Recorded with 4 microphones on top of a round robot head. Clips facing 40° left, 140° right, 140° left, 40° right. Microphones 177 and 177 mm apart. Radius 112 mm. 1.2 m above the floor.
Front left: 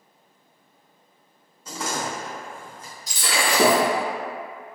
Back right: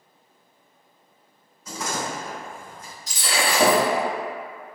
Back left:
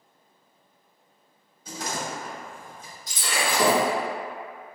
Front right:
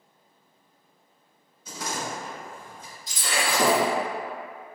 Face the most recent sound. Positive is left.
turn(degrees=50)